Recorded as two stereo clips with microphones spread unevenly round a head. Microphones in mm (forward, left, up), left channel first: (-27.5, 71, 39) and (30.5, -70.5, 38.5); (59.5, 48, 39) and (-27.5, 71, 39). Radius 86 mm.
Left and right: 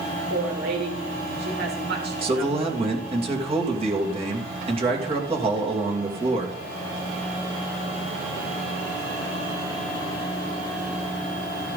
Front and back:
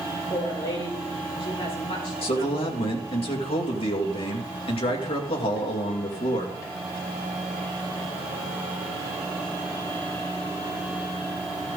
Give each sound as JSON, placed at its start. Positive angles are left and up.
{"t": 0.3, "sound": "a woman speaking", "azimuth_deg": -55, "distance_m": 4.5}
{"t": 2.2, "sound": "a man speaking", "azimuth_deg": -15, "distance_m": 2.5}